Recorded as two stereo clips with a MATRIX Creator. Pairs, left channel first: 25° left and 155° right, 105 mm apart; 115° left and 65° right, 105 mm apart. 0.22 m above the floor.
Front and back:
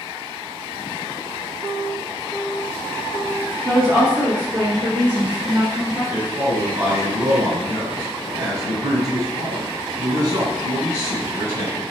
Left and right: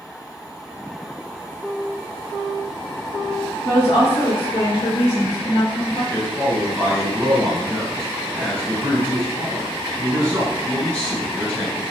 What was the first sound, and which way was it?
A woman speaking, 135° left.